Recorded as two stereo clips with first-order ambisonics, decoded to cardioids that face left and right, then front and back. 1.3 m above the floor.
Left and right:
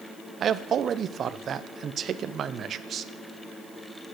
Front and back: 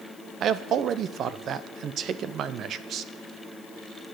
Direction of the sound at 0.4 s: 140° right.